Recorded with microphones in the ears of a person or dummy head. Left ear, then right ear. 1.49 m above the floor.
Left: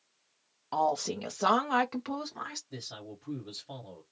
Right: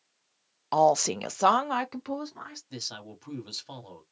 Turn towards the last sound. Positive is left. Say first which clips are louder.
# right 5 dB
turn(degrees=-65)  # may be behind; listen again after turning